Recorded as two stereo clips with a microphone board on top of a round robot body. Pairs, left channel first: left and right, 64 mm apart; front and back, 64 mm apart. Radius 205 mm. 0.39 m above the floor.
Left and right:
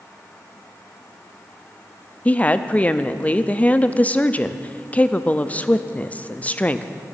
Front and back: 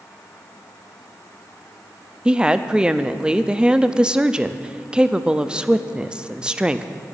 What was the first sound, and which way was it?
A woman speaking, 125° left.